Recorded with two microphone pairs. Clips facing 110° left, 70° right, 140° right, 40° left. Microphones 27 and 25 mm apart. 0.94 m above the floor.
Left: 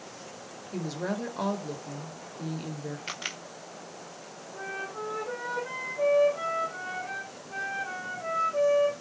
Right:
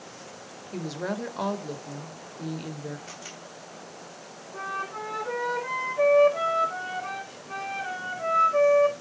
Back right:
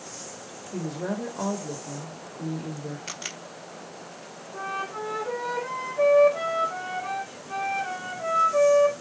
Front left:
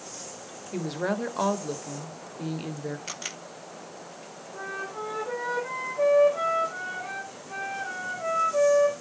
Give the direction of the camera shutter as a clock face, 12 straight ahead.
8 o'clock.